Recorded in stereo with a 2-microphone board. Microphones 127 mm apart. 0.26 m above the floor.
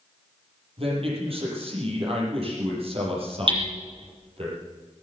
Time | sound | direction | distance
0.8 | a man speaking | 50° right (ahead or behind) | 7 m
3.5 | hammering | 45° right (ahead or behind) | 5.5 m